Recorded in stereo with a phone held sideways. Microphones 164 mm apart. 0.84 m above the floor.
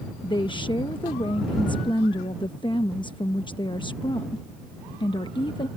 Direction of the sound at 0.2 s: 30° left (ahead or behind).